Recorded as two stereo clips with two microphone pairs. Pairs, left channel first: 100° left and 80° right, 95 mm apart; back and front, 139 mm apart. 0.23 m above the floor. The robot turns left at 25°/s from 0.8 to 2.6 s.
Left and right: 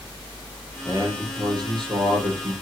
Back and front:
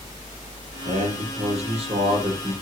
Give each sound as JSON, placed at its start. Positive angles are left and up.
{"t": 0.8, "sound": "a man speaking", "azimuth_deg": -20, "distance_m": 6.0}